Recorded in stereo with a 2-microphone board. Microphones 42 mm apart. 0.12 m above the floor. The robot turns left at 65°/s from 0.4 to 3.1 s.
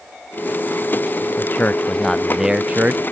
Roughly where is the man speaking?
Ahead left.